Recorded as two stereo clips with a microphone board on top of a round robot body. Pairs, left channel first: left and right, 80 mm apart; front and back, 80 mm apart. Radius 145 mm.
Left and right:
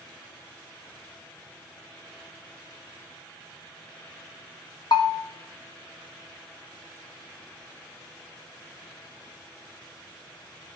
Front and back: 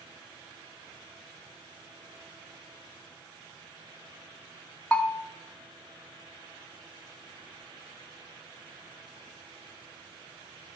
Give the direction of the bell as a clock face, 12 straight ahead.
10 o'clock.